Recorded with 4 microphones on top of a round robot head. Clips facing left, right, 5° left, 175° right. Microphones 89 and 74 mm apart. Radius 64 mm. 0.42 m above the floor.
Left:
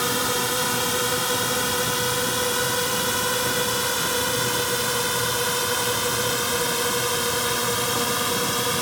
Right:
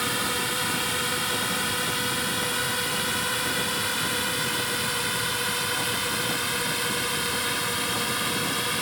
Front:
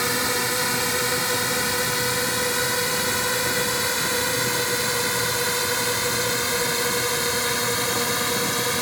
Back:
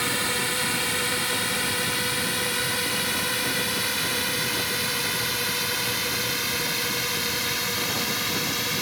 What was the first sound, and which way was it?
A drone, 60° left.